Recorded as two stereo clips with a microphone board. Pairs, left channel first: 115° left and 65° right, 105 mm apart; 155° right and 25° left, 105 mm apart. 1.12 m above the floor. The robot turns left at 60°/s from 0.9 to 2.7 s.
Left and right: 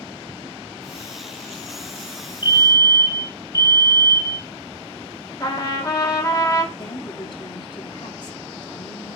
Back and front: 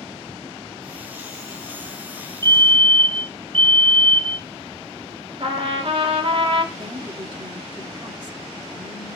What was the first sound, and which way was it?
A fire alarm, 75° left.